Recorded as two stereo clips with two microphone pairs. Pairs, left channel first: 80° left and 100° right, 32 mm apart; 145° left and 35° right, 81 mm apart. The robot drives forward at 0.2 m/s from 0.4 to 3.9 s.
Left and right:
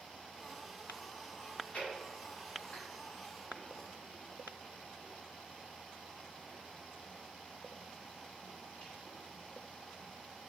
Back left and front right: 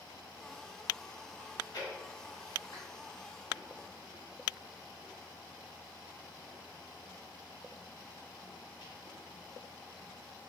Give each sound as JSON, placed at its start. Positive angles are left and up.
{"t": 1.4, "sound": "chewing", "azimuth_deg": 110, "distance_m": 1.4}